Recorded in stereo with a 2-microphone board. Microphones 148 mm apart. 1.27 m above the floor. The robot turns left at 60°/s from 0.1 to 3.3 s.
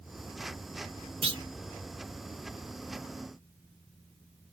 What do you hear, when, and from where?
1.2 s a clunk: 35° right (ahead or behind), 0.8 m; by 1.4 s 25° right (ahead or behind), 0.8 m